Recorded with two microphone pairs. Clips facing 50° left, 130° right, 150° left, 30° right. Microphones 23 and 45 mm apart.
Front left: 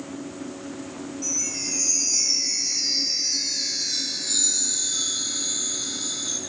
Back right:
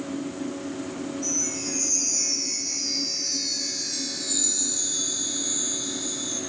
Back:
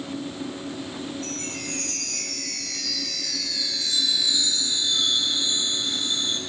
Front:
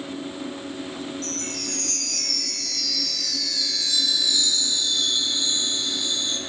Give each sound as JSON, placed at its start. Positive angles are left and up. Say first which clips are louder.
{"t": 1.2, "sound": "a chime", "louder": "front left 2 dB, front 1 dB", "azimuth_deg": 80, "distance_m": 3.5}